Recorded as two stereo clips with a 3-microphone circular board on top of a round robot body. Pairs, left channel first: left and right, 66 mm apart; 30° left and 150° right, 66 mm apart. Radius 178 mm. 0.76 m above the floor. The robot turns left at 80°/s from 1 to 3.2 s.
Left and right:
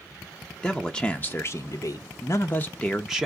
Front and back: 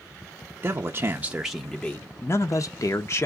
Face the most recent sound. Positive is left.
turn(degrees=-15)